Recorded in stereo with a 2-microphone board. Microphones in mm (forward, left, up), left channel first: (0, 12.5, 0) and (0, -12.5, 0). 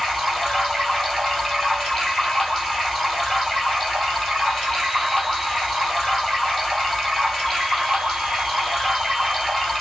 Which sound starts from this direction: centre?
Running water, at 0.0 s.